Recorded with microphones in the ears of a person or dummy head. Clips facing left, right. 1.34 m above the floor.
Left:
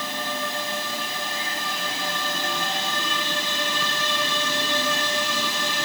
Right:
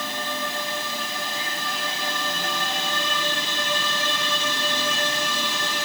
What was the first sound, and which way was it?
Only background noise.